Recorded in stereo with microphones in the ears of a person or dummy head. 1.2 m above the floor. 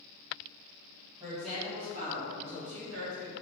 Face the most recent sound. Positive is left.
turn(degrees=-60)  # may be behind; listen again after turning